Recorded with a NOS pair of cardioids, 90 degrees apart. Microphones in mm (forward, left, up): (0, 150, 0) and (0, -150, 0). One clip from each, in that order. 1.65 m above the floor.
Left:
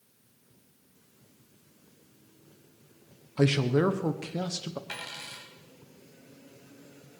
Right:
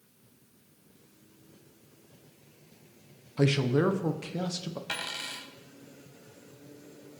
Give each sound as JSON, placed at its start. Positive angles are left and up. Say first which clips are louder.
{"t": 3.4, "sound": "a man speaking", "louder": "left 1 dB", "azimuth_deg": 10, "distance_m": 1.3}
{"t": 4.9, "sound": "a dropped coin", "louder": "right 4 dB", "azimuth_deg": -30, "distance_m": 4.0}